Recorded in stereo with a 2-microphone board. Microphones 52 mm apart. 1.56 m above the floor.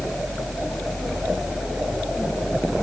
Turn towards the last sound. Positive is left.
No sound to turn to.